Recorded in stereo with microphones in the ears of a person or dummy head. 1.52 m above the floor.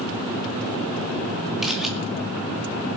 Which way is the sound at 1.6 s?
Centre (ahead or behind).